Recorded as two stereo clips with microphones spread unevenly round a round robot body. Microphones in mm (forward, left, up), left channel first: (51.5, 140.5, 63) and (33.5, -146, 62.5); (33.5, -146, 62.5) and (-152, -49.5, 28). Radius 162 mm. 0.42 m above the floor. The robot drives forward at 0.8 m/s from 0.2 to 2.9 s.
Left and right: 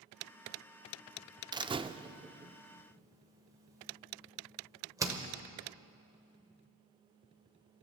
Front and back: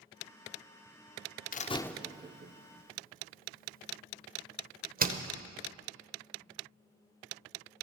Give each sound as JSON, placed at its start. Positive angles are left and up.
{"t": 1.5, "sound": "a door slam", "azimuth_deg": -30, "distance_m": 0.5}